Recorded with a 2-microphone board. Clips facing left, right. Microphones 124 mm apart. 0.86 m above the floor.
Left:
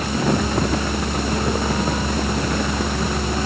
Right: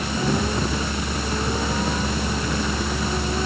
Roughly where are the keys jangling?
No keys jangling in this recording.